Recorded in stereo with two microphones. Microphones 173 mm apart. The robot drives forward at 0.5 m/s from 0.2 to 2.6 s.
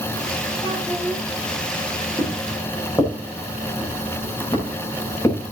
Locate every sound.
0.6 s a child speaking: 20° left (ahead or behind), 9.5 m
2.2 s footsteps: 20° left (ahead or behind), 7.5 m; by 5.5 s 15° left (ahead or behind), 11.5 m